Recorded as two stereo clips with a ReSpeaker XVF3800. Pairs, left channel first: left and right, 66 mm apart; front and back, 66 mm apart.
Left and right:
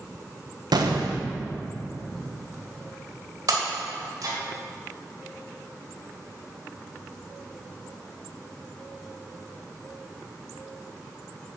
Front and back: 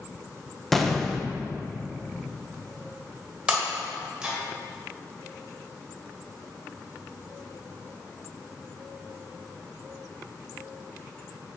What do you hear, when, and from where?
0.7 s an explosion: 85° right, 1.0 m
3.5 s breaking glass: 100° right, 2.5 m